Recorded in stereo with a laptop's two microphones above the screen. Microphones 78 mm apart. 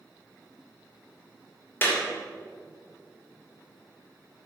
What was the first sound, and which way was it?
A clap, 30° left (ahead or behind).